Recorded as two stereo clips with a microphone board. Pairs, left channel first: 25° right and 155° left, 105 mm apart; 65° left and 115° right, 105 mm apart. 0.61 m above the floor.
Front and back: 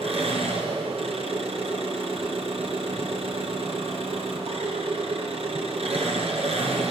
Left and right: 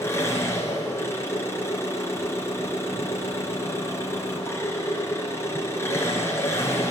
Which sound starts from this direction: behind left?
An engine running, at 0.0 s.